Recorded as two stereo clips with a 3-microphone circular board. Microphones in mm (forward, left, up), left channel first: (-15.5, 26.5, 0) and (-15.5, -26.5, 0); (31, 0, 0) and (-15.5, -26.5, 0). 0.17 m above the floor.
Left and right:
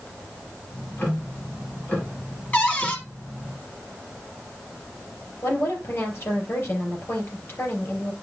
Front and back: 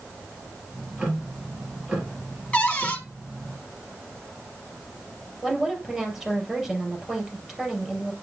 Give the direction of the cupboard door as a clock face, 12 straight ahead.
10 o'clock.